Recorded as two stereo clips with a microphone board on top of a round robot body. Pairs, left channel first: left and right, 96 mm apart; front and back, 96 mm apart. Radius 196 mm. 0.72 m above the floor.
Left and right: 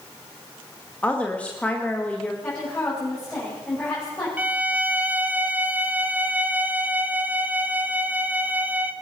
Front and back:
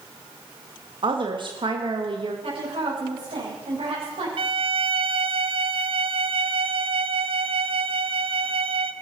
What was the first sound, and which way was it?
A woman speaking, 165° left.